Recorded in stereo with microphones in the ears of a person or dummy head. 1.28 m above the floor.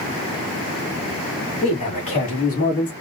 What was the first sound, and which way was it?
A man speaking, 30° left (ahead or behind).